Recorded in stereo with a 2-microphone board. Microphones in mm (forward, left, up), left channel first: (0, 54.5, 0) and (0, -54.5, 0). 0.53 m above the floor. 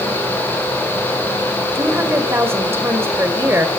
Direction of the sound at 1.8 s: 25° right (ahead or behind).